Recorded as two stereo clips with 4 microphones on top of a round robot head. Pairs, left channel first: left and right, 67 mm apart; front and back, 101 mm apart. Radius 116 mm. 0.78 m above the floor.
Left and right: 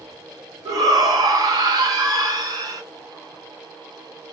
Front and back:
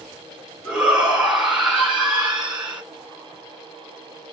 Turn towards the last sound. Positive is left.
turn(degrees=-95)